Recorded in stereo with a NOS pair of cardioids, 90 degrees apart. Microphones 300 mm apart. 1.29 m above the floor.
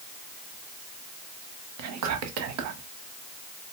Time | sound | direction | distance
1.8 | whispering | 65° right | 0.8 m